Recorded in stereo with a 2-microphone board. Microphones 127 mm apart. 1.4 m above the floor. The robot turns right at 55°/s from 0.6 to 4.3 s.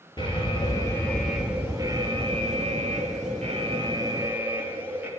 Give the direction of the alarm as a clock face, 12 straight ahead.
7 o'clock.